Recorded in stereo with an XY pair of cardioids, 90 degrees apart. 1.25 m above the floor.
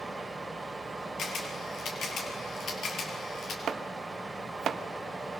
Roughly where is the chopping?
Right.